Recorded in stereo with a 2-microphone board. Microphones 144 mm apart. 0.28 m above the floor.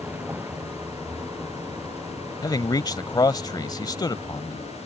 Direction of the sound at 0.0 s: 15° right (ahead or behind).